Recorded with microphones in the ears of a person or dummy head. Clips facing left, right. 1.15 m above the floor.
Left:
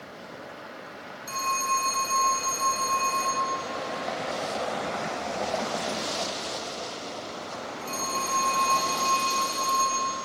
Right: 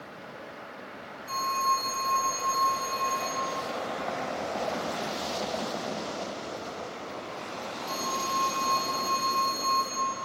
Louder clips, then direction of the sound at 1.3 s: Even; 65° left (ahead or behind).